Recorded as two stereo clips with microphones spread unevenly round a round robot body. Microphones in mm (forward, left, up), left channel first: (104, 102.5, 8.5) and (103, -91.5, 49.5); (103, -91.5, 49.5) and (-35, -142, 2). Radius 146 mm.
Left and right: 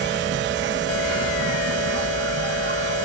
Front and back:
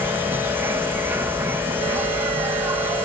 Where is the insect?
105° right.